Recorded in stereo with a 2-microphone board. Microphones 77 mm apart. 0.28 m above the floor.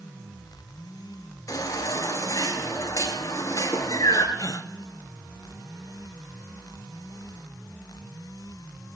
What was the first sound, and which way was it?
A baby crying, 45° left (ahead or behind).